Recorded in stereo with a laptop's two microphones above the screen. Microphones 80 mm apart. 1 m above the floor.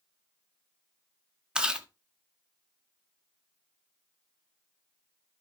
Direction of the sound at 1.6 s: 10° right (ahead or behind).